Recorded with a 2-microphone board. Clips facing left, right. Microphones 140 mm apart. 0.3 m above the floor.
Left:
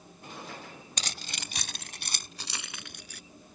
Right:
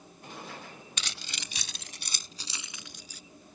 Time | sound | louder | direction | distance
1.0 | keys jangling | left 4 dB | 40° left (ahead or behind) | ?